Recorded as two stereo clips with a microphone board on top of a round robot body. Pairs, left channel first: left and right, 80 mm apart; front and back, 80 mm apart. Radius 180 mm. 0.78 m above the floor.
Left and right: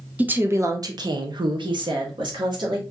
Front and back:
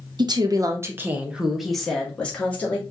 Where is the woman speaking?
160° right, 1.1 m; by 2.8 s 70° right, 2 m.